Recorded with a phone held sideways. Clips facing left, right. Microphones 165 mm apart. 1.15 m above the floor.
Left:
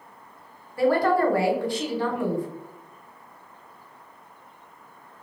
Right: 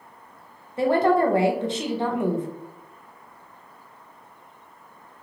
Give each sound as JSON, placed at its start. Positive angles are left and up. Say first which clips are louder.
{"t": 0.8, "sound": "a woman speaking", "louder": "right 1 dB", "side_deg": -20, "distance_m": 0.7}